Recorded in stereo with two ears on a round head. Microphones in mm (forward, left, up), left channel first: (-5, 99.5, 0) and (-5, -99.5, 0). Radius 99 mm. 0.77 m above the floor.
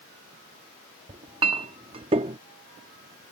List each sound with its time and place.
1.1 s a clink: 25° right (ahead or behind)